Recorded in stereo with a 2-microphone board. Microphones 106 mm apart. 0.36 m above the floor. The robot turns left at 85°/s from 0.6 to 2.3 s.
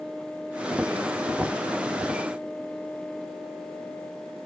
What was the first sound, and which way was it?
Only background noise.